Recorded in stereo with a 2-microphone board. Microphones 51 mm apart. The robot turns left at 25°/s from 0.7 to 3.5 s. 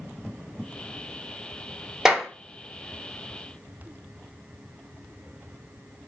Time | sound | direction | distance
2.0 | a clap | 10° right (ahead or behind) | 0.8 m